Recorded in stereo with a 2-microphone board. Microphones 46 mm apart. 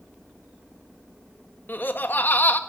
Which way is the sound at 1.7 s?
45° left (ahead or behind).